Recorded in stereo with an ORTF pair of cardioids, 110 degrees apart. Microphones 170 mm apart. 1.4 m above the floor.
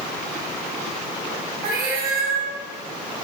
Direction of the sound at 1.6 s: 70° right.